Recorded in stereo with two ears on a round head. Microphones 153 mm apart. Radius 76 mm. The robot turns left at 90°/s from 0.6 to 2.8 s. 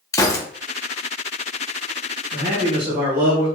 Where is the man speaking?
110° right, 1.8 m; by 3.5 s 155° right, 1.8 m.